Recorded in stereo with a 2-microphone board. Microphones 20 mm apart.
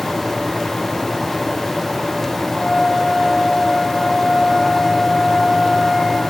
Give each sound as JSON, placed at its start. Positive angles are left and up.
{"t": 2.6, "sound": "a flute", "side_deg": 75, "distance_m": 5.5}